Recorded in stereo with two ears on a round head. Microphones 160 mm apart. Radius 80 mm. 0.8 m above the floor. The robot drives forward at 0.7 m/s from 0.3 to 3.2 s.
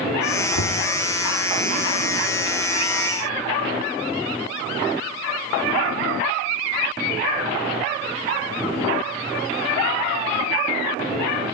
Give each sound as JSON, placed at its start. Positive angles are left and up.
{"t": 0.6, "sound": "knocking", "side_deg": 75, "distance_m": 1.0}